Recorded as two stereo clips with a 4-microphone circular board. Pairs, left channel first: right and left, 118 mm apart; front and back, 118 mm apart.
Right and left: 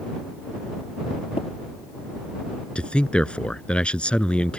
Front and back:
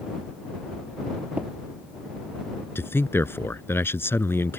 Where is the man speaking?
25° right.